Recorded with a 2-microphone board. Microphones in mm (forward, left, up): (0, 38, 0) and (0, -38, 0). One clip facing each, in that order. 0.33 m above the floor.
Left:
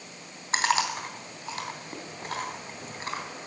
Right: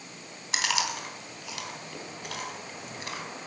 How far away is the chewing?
About 3 m.